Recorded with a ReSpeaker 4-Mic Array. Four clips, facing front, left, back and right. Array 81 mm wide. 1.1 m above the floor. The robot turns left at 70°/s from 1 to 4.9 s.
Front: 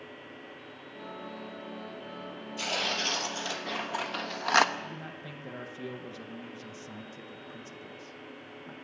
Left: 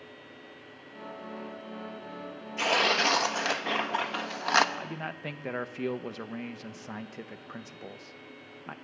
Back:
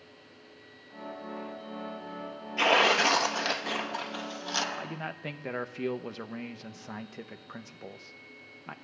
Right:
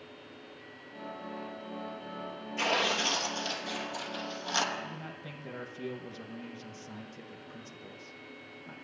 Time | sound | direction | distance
2.6 | tearing paper | straight behind | 1.2 m
4.8 | a man speaking | 140° left | 1.3 m